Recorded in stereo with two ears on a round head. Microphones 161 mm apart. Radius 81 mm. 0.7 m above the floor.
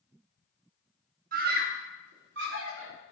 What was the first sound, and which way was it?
A scream, 50° right (ahead or behind).